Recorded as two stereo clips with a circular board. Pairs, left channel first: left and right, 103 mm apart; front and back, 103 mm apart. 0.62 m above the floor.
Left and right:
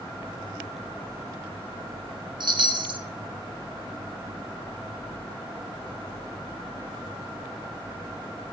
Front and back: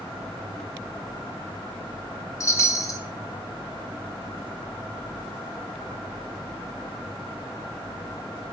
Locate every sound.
2.4 s a chime: 55° right, 0.6 m